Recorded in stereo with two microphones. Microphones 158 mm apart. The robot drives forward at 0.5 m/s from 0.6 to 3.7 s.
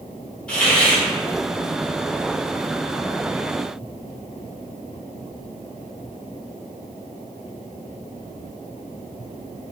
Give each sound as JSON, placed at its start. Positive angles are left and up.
{"t": 0.5, "sound": "a hiss", "side_deg": 10, "distance_m": 3.0}